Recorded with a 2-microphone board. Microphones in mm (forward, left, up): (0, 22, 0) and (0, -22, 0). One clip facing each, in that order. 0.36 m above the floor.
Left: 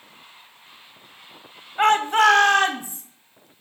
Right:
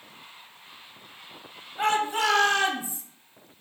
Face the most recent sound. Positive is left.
turn(degrees=45)  # may be behind; listen again after turning